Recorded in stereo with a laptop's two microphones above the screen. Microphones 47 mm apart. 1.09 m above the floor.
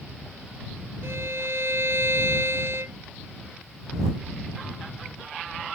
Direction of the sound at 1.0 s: 60° right (ahead or behind).